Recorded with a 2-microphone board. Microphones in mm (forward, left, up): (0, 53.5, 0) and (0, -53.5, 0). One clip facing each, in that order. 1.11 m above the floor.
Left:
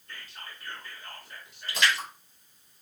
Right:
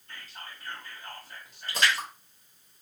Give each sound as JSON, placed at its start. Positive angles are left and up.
{"t": 0.1, "sound": "whispering", "side_deg": -40, "distance_m": 1.6}
{"t": 1.7, "sound": "a splash", "side_deg": -40, "distance_m": 1.2}